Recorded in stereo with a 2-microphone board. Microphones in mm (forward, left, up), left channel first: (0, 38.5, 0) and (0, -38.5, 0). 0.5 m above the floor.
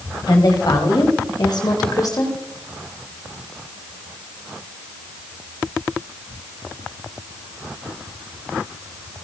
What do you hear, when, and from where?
0.3 s a woman speaking: 60° left (ahead or behind), 2.5 m; by 2.4 s 45° left (ahead or behind), 1.6 m